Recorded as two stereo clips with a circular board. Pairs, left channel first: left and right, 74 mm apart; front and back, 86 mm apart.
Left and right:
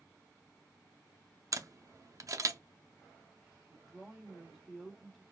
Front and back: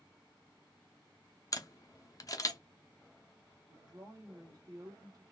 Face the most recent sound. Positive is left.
turn(degrees=180)